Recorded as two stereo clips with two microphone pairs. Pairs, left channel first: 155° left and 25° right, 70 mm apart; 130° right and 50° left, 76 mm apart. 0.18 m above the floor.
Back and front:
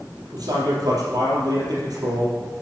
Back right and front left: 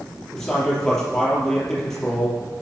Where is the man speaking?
45° right, 4.5 m.